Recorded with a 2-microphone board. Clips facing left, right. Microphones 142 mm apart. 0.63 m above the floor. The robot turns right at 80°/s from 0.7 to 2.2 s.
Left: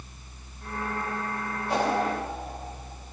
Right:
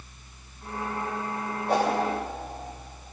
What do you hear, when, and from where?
1.7 s a whoosh: 65° right (ahead or behind), 3.5 m; by 2.0 s 45° right (ahead or behind), 3.5 m